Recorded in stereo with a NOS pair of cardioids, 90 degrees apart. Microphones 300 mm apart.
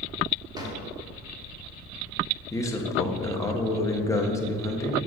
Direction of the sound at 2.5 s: 10° left.